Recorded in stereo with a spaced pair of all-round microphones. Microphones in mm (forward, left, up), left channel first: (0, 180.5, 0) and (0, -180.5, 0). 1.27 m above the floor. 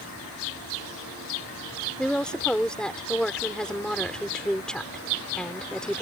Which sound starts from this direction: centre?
A woman speaking, at 2.0 s.